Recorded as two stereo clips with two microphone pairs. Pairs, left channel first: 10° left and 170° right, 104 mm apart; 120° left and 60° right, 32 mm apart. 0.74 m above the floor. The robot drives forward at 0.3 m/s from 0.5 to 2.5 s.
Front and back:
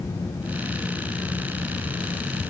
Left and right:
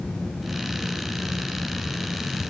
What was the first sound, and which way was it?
Only background noise.